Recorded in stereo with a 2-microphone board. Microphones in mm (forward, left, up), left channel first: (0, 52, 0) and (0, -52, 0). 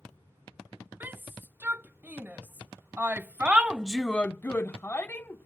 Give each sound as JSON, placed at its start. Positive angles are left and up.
{"t": 1.0, "sound": "a shout", "side_deg": -20}